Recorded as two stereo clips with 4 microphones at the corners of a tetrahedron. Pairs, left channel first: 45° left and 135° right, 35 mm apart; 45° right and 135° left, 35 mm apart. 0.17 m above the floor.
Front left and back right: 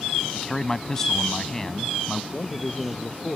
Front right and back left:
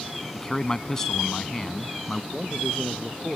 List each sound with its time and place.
0.3 s a man speaking: straight ahead
2.3 s a man speaking: 60° left